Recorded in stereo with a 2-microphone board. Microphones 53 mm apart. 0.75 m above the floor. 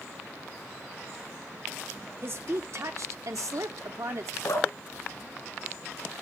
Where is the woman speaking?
45° right (ahead or behind), 1.6 m; by 4.3 s 65° right (ahead or behind), 1.4 m.